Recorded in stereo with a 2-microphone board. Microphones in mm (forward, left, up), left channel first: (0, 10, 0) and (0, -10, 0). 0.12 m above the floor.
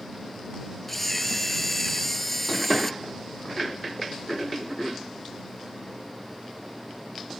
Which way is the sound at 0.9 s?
10° left (ahead or behind).